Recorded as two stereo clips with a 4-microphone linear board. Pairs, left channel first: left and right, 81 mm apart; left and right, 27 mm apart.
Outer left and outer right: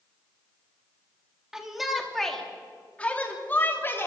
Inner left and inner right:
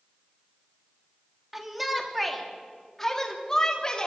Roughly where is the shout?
Centre.